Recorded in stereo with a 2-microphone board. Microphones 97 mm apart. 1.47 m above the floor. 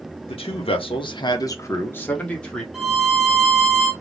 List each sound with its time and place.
0.3 s a man speaking: 70° left (ahead or behind), 0.7 m; by 2.6 s 10° left (ahead or behind), 1.2 m
2.7 s a violin: 5° right (ahead or behind), 1.1 m